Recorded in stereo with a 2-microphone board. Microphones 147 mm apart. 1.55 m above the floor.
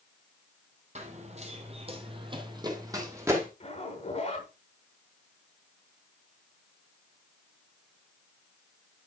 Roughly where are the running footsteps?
Right.